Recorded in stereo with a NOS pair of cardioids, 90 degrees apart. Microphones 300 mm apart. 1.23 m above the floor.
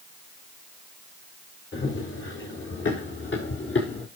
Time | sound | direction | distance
1.7 | running footsteps | 40° left | 6.5 m